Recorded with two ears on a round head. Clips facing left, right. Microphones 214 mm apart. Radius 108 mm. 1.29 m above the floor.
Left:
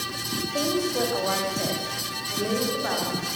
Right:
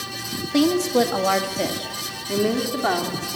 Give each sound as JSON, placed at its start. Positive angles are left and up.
{"t": 0.5, "sound": "a woman speaking", "side_deg": -75, "distance_m": 1.8}